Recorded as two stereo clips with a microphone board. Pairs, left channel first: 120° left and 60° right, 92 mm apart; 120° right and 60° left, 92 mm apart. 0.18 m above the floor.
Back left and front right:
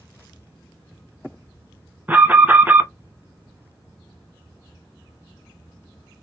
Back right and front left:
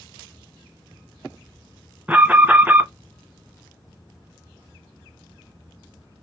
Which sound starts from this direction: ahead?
An alarm, at 2.1 s.